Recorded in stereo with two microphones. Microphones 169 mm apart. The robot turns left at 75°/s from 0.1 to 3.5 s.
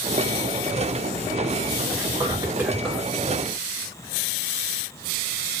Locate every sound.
1.9 s whispering: 105° right, 1.8 m; by 3.1 s 165° left, 1.8 m